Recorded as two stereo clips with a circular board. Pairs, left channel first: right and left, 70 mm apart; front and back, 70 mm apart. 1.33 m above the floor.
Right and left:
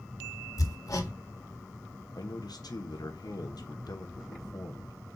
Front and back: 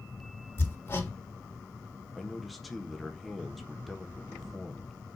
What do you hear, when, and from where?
0.6 s hammering: 60° right, 1.6 m
2.1 s a man speaking: 90° right, 1.1 m